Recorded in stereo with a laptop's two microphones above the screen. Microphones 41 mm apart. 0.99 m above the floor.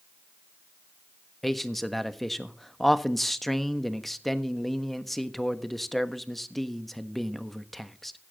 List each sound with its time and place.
1.4 s a man speaking: 5° left (ahead or behind), 1.2 m